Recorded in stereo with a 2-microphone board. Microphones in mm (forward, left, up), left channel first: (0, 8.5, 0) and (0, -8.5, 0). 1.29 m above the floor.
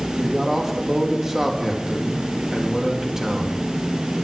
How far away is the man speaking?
About 2.5 m.